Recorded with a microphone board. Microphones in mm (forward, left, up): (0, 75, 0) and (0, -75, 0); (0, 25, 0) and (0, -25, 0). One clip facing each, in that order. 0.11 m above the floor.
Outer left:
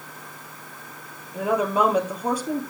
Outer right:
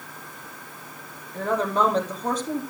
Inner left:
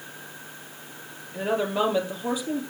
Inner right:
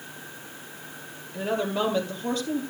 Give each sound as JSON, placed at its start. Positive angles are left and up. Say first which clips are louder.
{"t": 1.3, "sound": "a woman speaking", "louder": "outer left 2 dB, inner left 2 dB", "side_deg": 10, "distance_m": 3.5}